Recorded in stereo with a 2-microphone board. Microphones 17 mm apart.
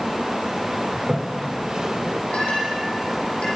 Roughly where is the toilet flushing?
Right.